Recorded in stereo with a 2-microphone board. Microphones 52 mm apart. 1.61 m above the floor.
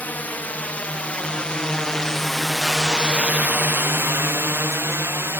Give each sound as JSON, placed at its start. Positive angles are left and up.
{"t": 0.0, "sound": "a drone", "side_deg": 30}